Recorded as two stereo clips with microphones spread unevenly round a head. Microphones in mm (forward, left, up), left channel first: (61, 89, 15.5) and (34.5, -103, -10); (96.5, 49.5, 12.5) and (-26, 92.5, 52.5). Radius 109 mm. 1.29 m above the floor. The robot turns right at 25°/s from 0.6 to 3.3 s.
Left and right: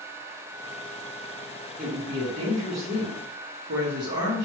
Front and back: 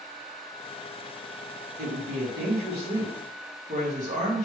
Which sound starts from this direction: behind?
A woman speaking, at 1.8 s.